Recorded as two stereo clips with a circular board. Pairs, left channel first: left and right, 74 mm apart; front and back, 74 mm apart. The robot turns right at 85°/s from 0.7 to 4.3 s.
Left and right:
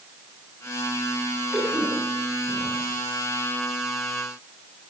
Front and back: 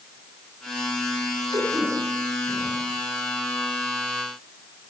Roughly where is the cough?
Behind right.